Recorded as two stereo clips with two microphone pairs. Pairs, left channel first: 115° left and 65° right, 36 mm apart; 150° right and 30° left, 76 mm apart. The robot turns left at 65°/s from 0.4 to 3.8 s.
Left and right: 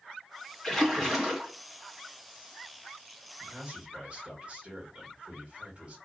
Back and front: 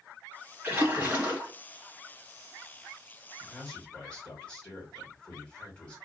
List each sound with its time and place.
0.6 s a splash: 50° left, 1.6 m; by 1.5 s 5° right, 1.6 m
3.4 s a man speaking: 65° right, 1.8 m; by 6.0 s 95° right, 1.8 m